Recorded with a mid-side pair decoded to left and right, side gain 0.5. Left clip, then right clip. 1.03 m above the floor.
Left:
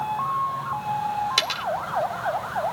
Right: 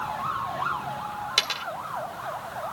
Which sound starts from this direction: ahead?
A dropped coin, at 1.4 s.